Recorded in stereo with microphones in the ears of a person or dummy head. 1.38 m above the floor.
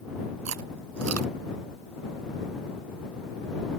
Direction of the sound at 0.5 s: 75° right (ahead or behind).